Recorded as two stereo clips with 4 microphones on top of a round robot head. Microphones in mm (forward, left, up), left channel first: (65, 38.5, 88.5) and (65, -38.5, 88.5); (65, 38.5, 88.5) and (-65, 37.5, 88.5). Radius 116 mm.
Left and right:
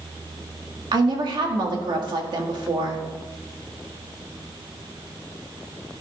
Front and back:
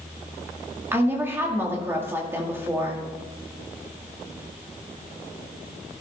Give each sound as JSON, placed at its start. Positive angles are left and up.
{"t": 0.9, "sound": "a woman speaking", "azimuth_deg": -105, "distance_m": 2.0}